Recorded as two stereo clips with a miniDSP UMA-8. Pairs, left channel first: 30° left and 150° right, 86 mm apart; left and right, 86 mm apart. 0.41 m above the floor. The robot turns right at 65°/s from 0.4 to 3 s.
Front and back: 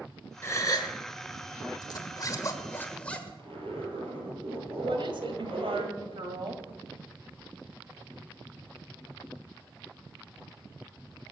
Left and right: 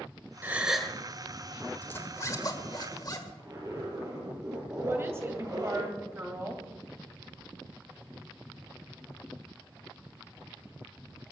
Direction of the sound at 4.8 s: 150° right.